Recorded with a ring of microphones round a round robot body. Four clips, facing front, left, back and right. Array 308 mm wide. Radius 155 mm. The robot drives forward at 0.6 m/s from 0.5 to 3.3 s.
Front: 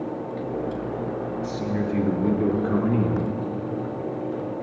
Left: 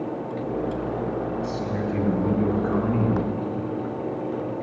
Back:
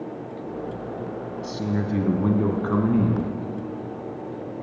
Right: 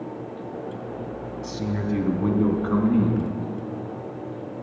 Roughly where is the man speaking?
Behind right.